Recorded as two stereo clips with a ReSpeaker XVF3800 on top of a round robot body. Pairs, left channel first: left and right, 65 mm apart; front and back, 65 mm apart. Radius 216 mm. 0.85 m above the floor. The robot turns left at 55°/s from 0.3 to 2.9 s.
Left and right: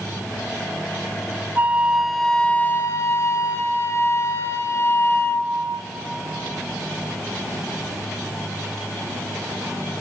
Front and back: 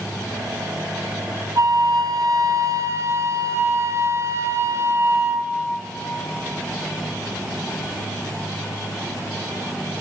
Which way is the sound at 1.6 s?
150° right.